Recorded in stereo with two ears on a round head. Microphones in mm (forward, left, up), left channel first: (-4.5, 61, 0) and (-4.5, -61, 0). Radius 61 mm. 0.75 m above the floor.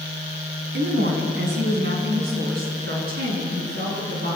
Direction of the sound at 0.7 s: 85° right.